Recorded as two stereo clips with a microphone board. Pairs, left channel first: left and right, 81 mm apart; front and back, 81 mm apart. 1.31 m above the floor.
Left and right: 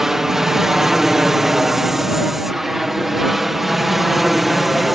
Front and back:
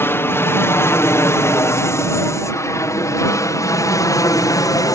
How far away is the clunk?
I don't hear a clunk.